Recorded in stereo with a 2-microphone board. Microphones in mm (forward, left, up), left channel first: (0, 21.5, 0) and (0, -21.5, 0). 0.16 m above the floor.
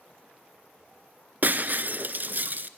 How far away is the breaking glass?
About 0.9 m.